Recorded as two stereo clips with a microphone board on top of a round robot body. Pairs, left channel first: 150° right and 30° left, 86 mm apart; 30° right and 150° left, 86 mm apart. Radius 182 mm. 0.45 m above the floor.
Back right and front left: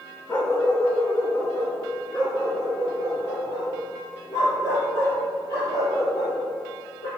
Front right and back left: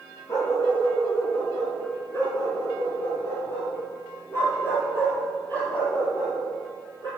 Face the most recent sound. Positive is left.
turn(degrees=-95)